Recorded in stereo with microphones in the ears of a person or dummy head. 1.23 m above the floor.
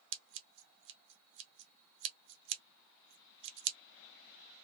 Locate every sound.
0.1 s scissors: 65° right (ahead or behind), 0.7 m